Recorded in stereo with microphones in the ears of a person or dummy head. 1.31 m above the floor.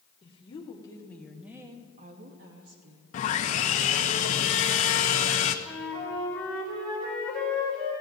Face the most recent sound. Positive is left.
turn(degrees=5)  # may be behind; listen again after turning